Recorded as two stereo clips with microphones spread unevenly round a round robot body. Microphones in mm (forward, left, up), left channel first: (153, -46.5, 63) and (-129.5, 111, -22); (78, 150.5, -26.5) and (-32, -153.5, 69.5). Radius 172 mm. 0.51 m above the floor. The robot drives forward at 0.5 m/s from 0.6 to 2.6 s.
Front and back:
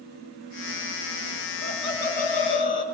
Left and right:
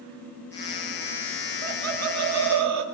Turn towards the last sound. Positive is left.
turn(degrees=-120)